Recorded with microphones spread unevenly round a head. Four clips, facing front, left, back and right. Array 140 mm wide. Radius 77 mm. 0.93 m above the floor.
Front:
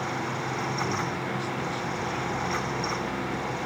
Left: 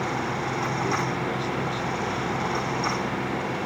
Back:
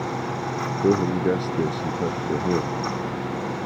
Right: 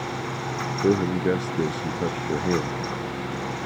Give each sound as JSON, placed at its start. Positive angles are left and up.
{"t": 0.8, "sound": "a man speaking", "azimuth_deg": -140}